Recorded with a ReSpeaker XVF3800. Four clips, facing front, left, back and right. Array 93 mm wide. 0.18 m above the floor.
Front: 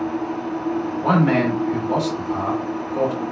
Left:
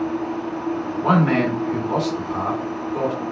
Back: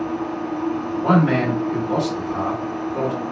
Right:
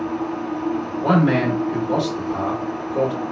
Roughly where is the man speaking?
Left.